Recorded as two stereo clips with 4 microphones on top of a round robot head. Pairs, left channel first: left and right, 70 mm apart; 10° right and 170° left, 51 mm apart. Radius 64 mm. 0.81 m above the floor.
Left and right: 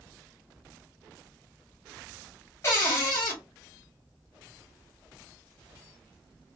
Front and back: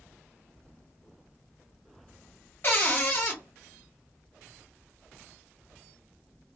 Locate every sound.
2.6 s a cupboard door: 35° left, 1.1 m